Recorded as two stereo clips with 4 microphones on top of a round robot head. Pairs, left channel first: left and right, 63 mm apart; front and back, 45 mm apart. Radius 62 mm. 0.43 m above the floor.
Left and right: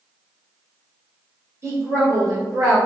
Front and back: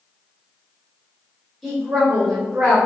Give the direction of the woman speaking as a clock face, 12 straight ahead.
3 o'clock.